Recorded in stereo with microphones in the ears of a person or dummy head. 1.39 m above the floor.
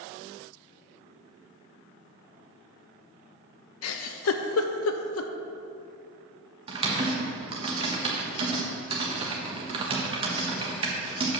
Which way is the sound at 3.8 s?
75° left (ahead or behind).